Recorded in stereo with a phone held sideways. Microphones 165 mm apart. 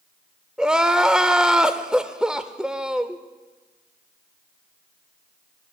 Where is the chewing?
I don't hear chewing.